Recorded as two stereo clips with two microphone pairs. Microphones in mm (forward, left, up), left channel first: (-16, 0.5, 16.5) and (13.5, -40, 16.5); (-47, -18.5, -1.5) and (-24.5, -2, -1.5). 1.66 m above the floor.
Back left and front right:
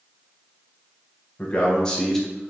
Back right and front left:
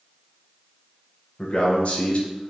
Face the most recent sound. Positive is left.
turn(degrees=-135)